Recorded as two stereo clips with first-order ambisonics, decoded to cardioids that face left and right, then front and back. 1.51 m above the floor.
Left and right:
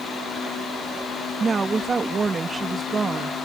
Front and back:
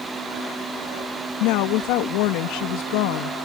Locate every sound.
1.4 s a woman speaking: 15° right